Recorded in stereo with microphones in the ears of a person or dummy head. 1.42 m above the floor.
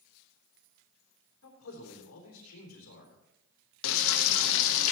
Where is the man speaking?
80° left, 3.5 m.